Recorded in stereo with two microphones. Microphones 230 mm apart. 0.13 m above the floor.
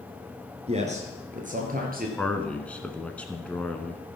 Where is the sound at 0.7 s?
30° right (ahead or behind), 2.5 m; by 2.1 s 40° right (ahead or behind), 3 m.